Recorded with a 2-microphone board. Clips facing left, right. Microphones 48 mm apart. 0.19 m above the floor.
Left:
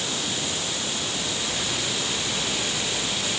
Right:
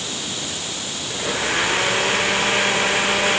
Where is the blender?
55° right (ahead or behind).